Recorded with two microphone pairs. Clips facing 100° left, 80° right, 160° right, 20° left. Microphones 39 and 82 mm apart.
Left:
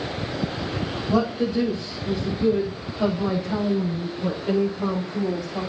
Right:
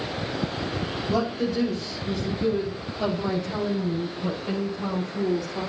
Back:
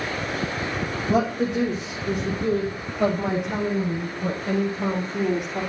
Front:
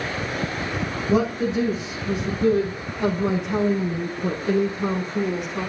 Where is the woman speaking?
175° left, 7.5 m; by 5.7 s 160° left, 10 m.